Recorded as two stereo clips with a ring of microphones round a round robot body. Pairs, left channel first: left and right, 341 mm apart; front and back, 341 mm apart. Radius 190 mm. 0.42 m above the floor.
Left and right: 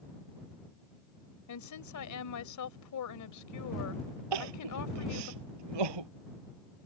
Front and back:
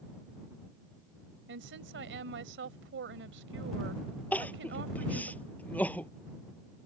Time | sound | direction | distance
1.5 | a woman speaking | 125° left | ?
4.3 | crying | 85° right | ?